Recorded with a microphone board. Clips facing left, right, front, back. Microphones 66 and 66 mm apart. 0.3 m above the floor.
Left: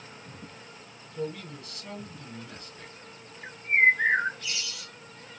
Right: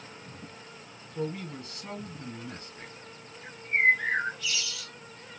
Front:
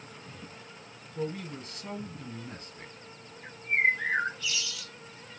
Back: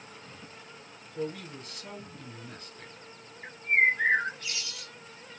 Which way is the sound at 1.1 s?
65° right.